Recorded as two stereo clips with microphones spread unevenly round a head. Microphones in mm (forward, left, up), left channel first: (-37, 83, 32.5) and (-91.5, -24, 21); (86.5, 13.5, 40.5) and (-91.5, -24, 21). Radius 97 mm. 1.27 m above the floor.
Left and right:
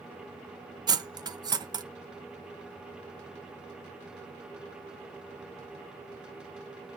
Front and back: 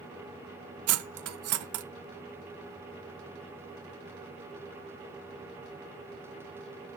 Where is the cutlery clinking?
175° right, 0.6 m.